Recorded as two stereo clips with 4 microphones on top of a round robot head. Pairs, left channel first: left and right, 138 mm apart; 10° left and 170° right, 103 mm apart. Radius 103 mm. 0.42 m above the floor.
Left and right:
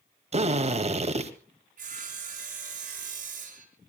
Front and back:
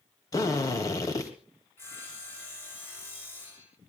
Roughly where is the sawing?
Ahead right.